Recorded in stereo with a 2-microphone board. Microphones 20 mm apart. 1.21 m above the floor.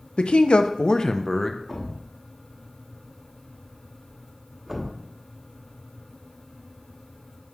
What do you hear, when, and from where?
0.2 s a man speaking: 80° left, 0.6 m; by 1.6 s 10° left (ahead or behind), 0.6 m
1.7 s a thud: 20° right (ahead or behind), 1.1 m